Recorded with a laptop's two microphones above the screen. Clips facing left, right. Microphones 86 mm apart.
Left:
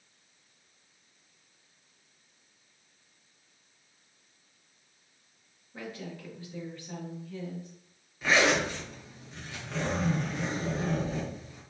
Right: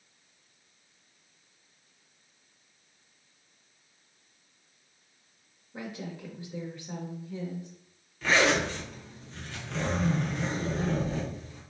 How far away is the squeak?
I don't hear a squeak.